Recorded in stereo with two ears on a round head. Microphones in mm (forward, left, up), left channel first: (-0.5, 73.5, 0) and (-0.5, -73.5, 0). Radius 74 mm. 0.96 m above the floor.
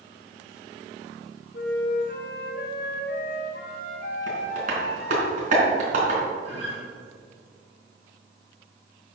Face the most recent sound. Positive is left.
turn(degrees=-40)  # may be behind; listen again after turning